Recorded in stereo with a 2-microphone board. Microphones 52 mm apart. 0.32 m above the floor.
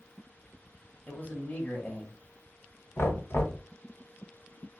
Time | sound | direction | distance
1.1 | a man speaking | 30° left (ahead or behind) | 1.4 m
3.0 | knocking | 55° left (ahead or behind) | 1.5 m